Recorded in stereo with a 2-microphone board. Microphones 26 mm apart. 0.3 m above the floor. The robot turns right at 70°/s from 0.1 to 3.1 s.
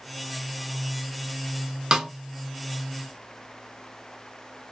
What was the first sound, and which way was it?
A snare drum, 25° right (ahead or behind).